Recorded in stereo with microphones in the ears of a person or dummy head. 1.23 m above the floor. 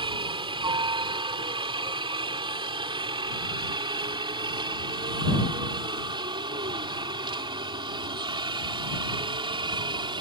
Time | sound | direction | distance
0.0 | a helicopter | 25° right (ahead or behind) | ?